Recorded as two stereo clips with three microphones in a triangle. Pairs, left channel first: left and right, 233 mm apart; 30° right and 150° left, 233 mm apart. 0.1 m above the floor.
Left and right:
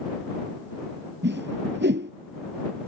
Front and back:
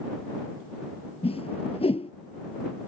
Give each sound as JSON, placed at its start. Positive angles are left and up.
{"t": 1.2, "sound": "a whoosh", "azimuth_deg": -90}